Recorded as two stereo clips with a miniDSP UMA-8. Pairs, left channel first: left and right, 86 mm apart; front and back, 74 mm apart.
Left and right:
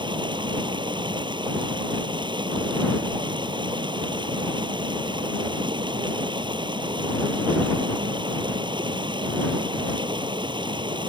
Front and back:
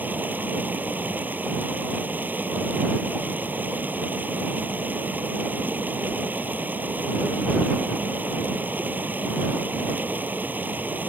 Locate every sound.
0.0 s running water: 115° right